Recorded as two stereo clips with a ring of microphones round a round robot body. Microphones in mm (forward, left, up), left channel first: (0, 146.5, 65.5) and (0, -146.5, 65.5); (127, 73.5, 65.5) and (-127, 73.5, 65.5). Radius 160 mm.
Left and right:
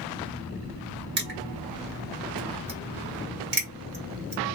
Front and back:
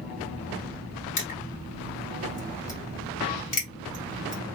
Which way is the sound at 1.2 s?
50° right.